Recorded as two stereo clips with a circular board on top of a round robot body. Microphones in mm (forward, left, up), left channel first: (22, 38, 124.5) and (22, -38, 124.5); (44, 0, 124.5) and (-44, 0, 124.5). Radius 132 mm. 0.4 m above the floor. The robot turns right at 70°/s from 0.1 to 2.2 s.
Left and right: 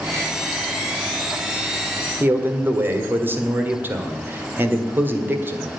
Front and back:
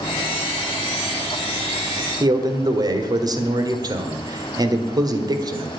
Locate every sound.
2.2 s a man speaking: 150° right, 1.8 m